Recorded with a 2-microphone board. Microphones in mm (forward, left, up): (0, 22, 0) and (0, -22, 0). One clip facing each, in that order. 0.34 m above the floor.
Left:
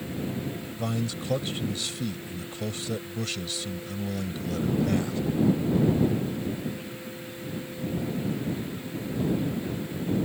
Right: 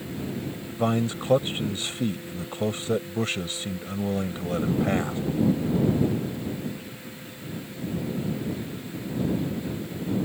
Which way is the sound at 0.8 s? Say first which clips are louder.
Right 7 dB; 35° right (ahead or behind).